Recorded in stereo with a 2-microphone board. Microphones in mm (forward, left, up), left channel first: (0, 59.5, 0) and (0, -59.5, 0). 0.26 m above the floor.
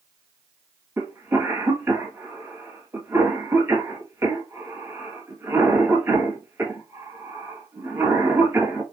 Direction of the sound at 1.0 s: 20° right (ahead or behind).